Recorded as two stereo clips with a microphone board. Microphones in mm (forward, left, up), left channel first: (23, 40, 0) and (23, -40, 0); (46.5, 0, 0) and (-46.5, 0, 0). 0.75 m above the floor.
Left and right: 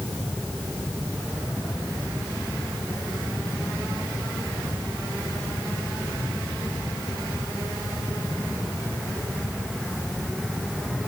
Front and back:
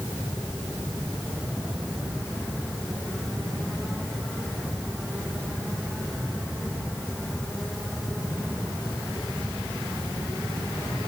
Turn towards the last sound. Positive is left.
No sound to turn to.